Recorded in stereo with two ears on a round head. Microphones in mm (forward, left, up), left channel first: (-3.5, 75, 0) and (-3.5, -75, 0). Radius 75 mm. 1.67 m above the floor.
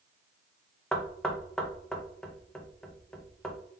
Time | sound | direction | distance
0.9 | knocking | 5° left (ahead or behind) | 0.6 m